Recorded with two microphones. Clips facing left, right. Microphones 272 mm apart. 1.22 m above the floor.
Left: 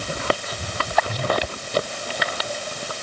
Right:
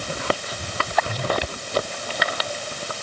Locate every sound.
Only background noise.